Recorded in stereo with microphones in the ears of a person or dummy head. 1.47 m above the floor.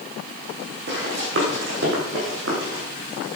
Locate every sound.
0.9 s running footsteps: 70° right (ahead or behind), 6.5 m; by 2.8 s 75° right (ahead or behind), 7.5 m